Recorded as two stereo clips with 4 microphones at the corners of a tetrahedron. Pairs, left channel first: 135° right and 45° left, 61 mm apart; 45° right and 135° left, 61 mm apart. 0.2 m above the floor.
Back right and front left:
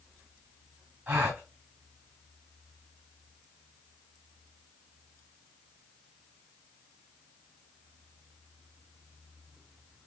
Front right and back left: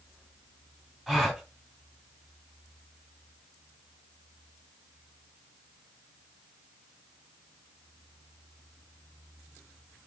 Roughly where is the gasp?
Ahead left.